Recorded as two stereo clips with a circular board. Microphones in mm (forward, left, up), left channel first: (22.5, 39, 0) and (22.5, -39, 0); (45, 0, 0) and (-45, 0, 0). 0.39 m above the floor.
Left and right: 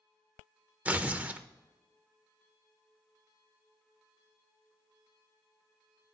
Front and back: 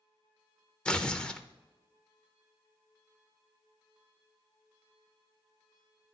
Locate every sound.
0.8 s tearing paper: 60° right, 0.5 m